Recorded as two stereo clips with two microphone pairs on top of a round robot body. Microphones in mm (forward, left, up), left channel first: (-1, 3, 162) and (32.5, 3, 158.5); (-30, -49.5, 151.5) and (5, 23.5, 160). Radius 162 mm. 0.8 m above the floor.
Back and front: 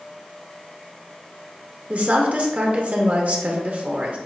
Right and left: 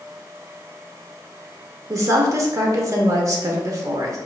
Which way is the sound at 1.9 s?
30° left.